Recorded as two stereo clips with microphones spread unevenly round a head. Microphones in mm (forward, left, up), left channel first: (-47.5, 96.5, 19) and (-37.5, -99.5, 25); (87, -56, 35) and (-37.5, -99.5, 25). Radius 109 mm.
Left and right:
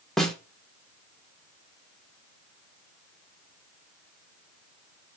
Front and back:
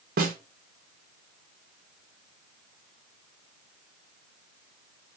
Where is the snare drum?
Straight behind, 0.5 m.